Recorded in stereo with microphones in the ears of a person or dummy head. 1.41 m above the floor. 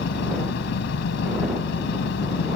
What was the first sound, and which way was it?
An engine running, 70° left (ahead or behind).